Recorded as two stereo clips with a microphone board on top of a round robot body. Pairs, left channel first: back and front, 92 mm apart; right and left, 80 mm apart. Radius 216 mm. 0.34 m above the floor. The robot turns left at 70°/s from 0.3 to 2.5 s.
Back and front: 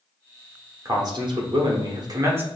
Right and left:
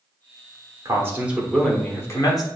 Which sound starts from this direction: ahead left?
A man speaking, at 0.8 s.